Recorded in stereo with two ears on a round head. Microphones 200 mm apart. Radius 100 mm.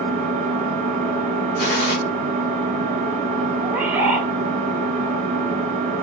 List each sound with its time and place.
0.0 s an engine running: 35° right (ahead or behind), 3.5 m
1.6 s a gunshot: 45° left (ahead or behind), 1.2 m
3.6 s a bird: 10° right (ahead or behind), 0.8 m